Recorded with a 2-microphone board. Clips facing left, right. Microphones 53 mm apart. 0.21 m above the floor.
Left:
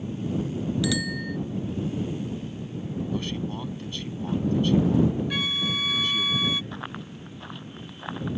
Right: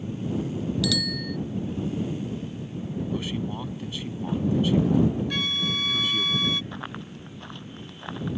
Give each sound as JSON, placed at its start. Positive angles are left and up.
{"t": 0.8, "sound": "a bicycle bell", "side_deg": 20}
{"t": 3.1, "sound": "a man speaking", "side_deg": -10}
{"t": 5.3, "sound": "a flute", "side_deg": 5}
{"t": 6.7, "sound": "running footsteps", "side_deg": 0}